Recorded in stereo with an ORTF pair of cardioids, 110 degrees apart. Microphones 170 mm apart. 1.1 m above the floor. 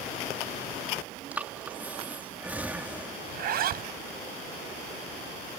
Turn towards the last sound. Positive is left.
turn(degrees=-65)